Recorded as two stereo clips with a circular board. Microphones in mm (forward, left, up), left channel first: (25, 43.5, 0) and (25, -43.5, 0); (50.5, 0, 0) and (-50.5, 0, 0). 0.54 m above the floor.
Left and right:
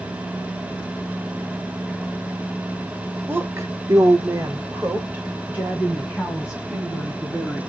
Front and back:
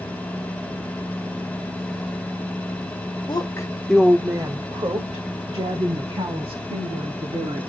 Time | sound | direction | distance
3.3 | a woman speaking | 30° right | 1.4 m